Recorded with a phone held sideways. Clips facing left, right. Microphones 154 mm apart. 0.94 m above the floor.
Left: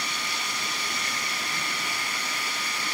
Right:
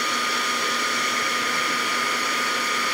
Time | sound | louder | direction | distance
0.0 | a fan | right 7 dB | 75° right (ahead or behind) | ?